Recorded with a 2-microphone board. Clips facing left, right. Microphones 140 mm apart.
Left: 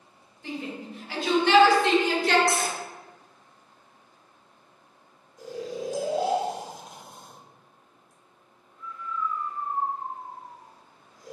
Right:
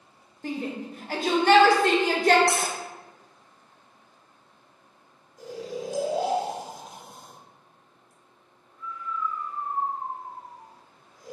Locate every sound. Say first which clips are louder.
0.4 s a shout: right 3 dB; 45° right (ahead or behind), 0.6 m
2.5 s cutlery clinking: even; 75° right (ahead or behind), 0.6 m
5.4 s snoring: left 1 dB; 5° right (ahead or behind), 0.9 m